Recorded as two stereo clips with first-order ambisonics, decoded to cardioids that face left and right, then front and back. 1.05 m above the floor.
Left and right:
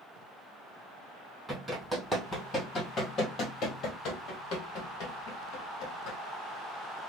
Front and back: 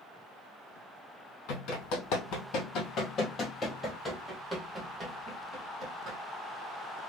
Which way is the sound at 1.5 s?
5° left.